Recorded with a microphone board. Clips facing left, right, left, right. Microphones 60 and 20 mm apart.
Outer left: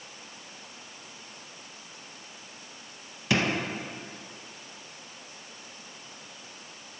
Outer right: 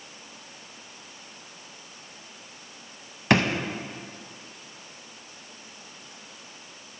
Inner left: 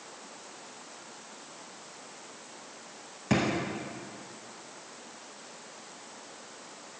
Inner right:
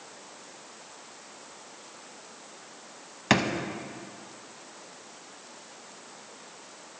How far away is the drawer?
About 0.7 m.